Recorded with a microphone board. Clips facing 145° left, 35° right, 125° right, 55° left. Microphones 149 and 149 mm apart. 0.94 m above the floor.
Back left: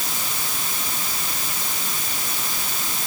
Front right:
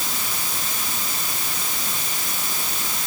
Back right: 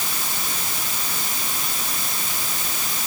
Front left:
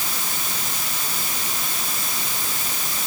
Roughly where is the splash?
No splash in this recording.